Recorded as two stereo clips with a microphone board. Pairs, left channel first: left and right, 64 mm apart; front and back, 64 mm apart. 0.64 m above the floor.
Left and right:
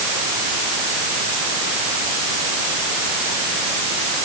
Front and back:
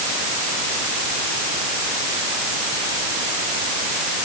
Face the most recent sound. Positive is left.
No sound to turn to.